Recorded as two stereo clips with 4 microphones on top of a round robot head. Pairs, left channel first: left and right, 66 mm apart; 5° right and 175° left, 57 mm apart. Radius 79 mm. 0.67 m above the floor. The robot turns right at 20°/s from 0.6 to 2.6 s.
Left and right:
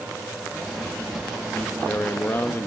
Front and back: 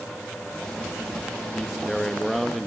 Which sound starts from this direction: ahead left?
A man speaking, at 1.6 s.